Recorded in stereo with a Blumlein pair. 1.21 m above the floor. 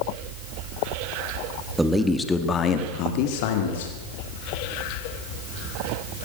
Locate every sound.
1.8 s a man speaking: 5° right, 1.8 m; by 4.0 s 55° left, 3 m